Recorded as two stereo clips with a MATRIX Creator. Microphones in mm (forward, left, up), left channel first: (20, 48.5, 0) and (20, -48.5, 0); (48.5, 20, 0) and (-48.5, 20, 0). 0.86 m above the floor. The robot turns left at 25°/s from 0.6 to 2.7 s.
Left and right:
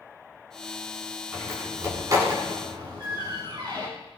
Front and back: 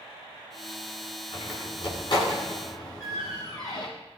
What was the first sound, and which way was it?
A door slam, 15° right.